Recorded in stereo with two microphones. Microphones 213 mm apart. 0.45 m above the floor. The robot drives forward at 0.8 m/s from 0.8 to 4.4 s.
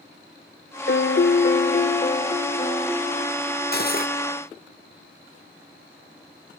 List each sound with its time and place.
0.9 s a piano: 55° left (ahead or behind), 0.6 m; by 3.6 s 15° left (ahead or behind), 2 m
3.7 s cutlery clinking: 50° left (ahead or behind), 0.8 m; by 4.1 s 40° left (ahead or behind), 0.9 m